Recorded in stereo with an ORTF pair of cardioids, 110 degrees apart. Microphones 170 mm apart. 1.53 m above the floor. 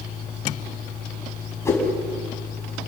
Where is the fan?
50° left, 6 m.